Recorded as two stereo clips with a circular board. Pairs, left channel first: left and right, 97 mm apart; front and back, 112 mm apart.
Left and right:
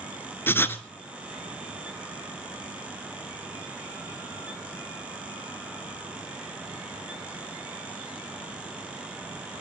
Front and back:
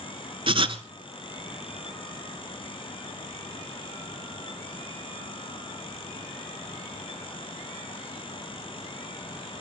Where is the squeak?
No squeak in this recording.